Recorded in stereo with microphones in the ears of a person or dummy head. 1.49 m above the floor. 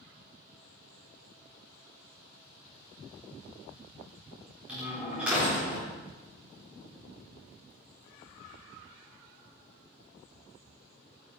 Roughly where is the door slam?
Centre.